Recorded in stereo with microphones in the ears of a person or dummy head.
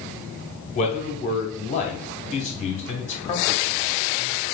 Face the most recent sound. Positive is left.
turn(degrees=30)  # may be behind; listen again after turning